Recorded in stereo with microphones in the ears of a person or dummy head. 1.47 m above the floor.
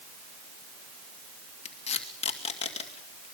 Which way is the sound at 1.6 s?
25° left (ahead or behind).